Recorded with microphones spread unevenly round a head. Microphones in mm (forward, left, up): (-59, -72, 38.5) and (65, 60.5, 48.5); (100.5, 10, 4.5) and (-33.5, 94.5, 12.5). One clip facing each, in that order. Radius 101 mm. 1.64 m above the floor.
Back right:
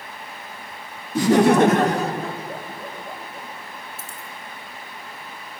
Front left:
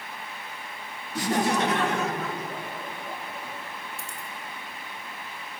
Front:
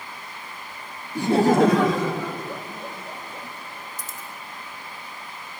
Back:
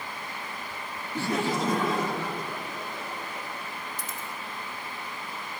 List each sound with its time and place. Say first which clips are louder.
1.1 s laughter: back right 10 dB, front 10 dB; 120° right, 0.5 m; by 3.5 s 60° right, 2.5 m
4.0 s a dropped coin: back right 1 dB, back 1 dB; 45° right, 1.8 m